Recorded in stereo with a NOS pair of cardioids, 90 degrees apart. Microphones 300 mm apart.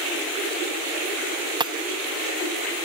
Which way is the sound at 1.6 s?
15° right.